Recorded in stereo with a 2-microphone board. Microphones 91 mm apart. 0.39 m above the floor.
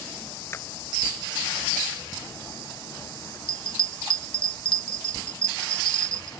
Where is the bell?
65° left (ahead or behind).